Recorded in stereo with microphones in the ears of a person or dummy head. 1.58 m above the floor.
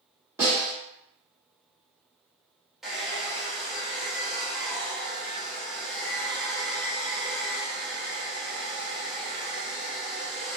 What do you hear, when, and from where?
0.4 s a snare drum: 15° right (ahead or behind), 1.5 m
2.8 s a hair dryer: 5° right (ahead or behind), 0.6 m